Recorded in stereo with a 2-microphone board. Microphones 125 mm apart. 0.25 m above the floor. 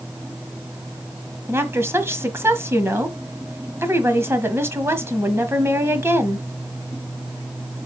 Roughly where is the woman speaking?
Right.